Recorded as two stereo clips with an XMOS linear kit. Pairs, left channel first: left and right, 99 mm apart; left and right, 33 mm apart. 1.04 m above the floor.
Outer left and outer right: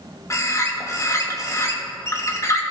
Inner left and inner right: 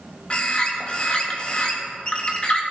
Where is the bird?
30° left (ahead or behind), 1.4 m.